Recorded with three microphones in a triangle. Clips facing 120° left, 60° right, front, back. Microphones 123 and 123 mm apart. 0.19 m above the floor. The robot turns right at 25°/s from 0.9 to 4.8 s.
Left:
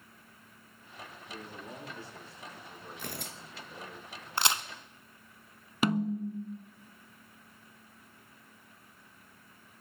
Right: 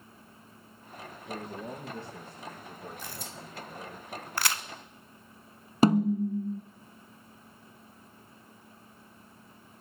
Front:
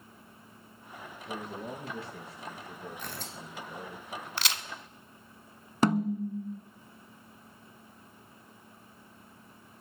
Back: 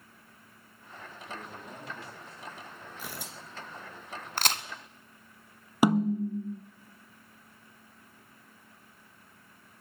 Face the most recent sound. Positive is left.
turn(degrees=-105)